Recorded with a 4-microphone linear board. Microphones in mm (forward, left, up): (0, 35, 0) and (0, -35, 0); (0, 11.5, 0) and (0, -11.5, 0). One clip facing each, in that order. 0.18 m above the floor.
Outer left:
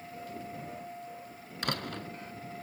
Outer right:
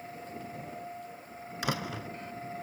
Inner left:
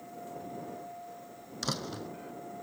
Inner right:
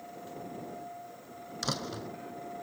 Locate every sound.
1.6 s a door slam: 5° right (ahead or behind)